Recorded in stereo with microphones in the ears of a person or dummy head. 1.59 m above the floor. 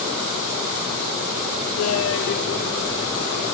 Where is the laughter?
70° left (ahead or behind), 0.7 m; by 3.5 s 20° left (ahead or behind), 1.9 m.